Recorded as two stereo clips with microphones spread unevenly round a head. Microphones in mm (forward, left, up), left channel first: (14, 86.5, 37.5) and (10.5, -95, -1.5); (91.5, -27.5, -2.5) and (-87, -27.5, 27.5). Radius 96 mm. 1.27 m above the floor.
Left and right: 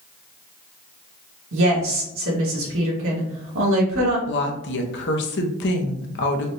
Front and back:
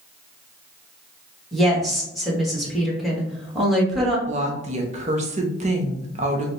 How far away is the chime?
I don't hear a chime.